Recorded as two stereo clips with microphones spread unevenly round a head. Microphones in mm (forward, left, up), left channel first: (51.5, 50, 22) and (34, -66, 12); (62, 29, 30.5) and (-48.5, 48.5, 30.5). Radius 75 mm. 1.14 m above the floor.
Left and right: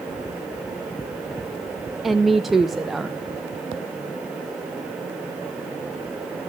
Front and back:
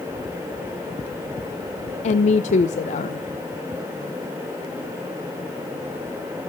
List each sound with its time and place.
2.0 s a woman speaking: 10° right, 0.7 m